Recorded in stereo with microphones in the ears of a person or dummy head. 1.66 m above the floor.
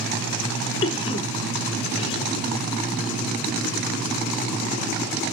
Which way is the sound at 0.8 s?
35° left (ahead or behind).